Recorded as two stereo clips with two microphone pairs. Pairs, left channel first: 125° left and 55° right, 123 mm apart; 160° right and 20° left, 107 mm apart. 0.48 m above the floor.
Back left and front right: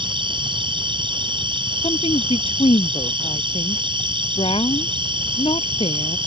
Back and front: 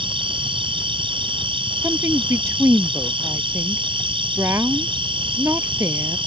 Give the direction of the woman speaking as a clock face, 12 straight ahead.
9 o'clock.